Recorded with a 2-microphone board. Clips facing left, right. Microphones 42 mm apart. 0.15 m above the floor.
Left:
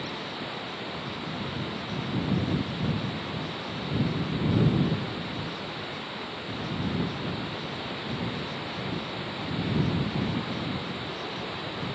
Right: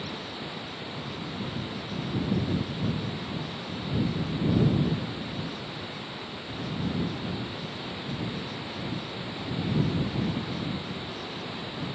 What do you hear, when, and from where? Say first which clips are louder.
0.0 s running water: left 2 dB; 15° left (ahead or behind)